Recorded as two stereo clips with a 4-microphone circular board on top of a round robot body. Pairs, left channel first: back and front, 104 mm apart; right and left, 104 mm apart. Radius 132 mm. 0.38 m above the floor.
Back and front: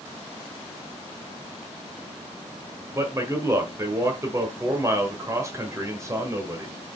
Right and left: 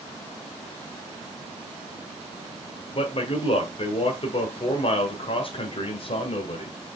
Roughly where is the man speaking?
Ahead right.